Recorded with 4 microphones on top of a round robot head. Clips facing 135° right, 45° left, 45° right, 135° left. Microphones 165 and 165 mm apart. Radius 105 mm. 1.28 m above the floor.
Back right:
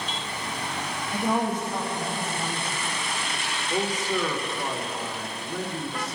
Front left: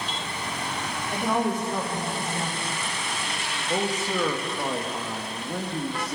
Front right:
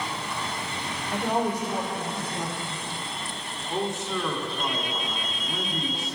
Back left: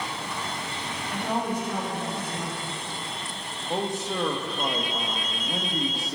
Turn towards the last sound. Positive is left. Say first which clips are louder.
# even, even
turn(degrees=80)